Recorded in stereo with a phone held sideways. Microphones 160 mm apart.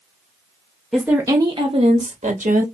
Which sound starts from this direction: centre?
A woman speaking, at 0.9 s.